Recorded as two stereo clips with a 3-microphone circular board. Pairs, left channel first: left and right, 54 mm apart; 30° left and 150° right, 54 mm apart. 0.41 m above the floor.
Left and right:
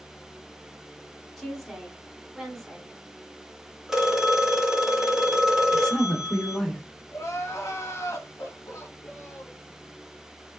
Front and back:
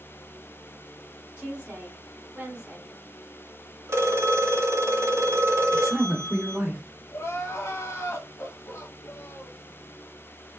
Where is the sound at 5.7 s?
155° left, 0.8 m.